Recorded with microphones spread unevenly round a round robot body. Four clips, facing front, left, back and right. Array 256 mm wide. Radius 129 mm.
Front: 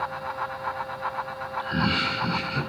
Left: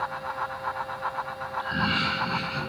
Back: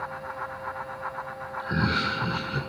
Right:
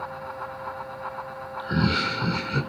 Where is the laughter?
130° right, 2 m; by 2.6 s 110° right, 2 m.